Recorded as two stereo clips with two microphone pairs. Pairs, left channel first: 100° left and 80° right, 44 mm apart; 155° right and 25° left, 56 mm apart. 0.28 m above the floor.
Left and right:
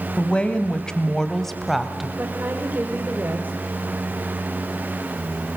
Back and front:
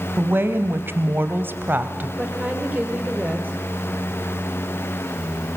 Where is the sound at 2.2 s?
35° right, 6.5 m.